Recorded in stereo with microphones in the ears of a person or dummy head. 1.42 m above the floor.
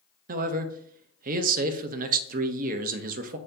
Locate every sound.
0.3 s a man speaking: 45° right (ahead or behind), 0.5 m